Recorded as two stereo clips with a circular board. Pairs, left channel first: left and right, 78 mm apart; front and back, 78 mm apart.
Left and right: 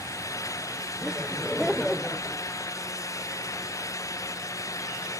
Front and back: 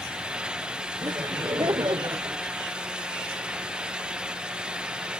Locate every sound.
1.0 s laughter: 165° right; by 2.4 s 165° left